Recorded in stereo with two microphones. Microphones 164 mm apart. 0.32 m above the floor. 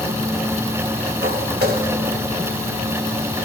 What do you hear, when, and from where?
1.2 s footsteps: 80° right, 4 m